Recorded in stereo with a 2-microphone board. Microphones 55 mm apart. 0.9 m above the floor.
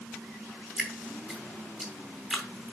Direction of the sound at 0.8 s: 10° right (ahead or behind).